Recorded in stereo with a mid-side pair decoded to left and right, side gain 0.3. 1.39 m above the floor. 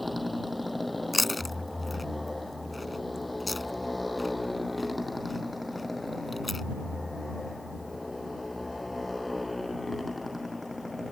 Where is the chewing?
25° left.